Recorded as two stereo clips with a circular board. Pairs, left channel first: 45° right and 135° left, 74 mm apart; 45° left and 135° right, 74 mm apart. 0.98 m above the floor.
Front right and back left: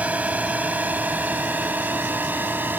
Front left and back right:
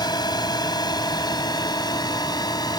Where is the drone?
65° left; by 2.8 s 70° left.